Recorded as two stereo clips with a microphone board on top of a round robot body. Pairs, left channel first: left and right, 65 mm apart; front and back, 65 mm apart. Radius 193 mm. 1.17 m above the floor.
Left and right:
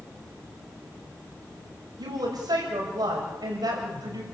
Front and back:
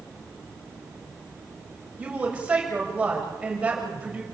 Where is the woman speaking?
110° right, 7 m.